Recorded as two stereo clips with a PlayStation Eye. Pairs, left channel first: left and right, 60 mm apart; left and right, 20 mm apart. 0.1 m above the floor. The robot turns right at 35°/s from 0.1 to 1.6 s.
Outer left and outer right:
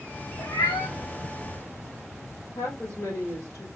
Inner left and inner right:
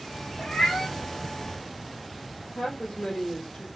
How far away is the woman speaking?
About 2.5 m.